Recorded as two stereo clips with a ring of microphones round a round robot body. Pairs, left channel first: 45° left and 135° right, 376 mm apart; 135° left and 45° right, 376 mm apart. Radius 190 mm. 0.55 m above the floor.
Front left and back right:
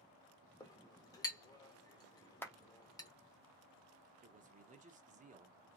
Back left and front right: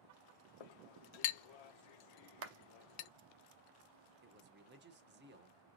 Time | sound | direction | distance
0.6 | a clink | 125° left | 0.7 m
2.4 | a clap | 35° right | 0.6 m
4.2 | a man speaking | 80° right | 0.7 m